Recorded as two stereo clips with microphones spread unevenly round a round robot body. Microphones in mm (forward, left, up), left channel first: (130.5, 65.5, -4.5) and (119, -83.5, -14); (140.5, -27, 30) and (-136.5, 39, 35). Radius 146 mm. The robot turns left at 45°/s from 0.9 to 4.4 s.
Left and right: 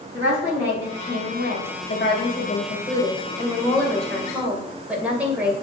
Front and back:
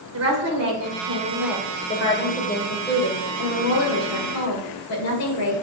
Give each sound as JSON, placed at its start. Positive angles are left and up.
{"t": 0.1, "sound": "a woman speaking", "azimuth_deg": 140, "distance_m": 2.0}